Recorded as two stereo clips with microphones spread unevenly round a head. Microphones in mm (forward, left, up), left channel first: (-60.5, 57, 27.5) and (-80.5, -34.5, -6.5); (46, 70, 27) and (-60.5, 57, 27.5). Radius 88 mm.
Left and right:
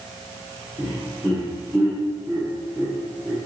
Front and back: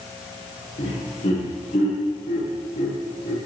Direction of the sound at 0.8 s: 20° right.